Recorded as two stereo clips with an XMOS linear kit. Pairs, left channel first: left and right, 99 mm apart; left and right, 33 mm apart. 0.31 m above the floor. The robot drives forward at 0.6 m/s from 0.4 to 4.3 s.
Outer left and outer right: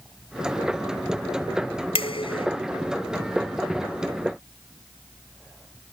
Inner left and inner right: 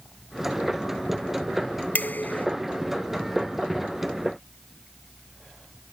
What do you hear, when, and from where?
1.9 s dishes clattering: 70° left (ahead or behind)